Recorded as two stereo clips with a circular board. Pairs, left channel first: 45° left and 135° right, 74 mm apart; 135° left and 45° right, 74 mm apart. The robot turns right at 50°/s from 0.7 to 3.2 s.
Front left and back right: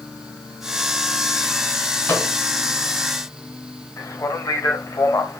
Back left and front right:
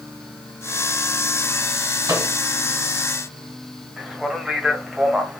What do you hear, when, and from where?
2.1 s a microwave: 15° right, 2 m; by 2.3 s straight ahead, 2 m
4.0 s a man speaking: 35° left, 1.2 m